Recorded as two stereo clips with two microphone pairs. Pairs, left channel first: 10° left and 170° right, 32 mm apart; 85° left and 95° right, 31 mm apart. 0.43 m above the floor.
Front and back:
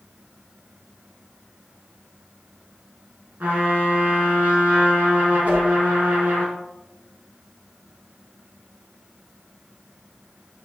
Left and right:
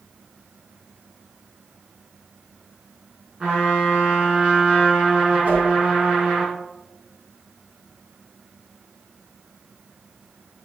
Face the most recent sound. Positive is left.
turn(degrees=-130)